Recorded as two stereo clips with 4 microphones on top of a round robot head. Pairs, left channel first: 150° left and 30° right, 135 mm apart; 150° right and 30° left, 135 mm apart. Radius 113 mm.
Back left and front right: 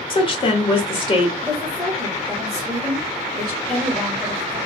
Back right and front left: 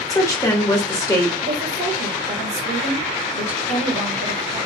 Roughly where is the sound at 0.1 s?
Behind.